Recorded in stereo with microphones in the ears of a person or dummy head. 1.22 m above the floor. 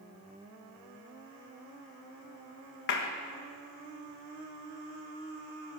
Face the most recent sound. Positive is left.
turn(degrees=65)  # may be behind; listen again after turning